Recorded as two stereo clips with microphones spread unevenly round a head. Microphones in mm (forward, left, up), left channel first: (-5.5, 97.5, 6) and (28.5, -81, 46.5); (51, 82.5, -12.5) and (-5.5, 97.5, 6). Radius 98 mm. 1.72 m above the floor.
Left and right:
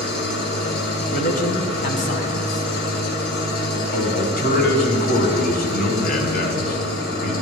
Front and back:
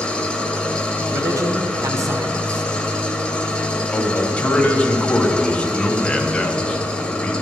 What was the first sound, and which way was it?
An engine running, 70° left.